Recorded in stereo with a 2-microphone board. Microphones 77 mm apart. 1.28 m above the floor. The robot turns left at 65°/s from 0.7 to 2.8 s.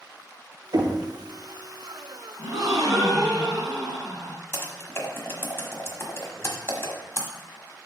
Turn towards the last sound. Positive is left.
turn(degrees=35)  # may be behind; listen again after turning